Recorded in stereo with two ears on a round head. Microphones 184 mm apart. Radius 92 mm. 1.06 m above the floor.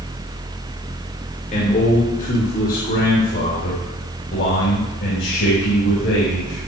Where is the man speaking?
40° left (ahead or behind), 4 m; by 6.7 s 65° left (ahead or behind), 6.5 m.